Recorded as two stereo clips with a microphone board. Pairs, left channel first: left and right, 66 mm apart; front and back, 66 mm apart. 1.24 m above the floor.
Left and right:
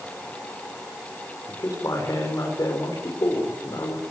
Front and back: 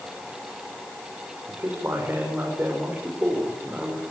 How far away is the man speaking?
About 5.5 m.